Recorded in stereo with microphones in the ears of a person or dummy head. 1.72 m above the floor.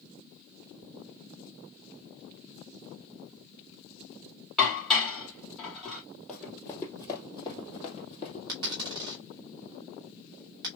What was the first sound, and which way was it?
Dishes clattering, centre (ahead or behind).